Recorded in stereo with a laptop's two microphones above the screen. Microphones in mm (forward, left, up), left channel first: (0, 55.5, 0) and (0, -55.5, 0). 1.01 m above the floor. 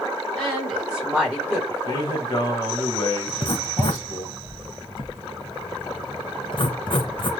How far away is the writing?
About 0.7 m.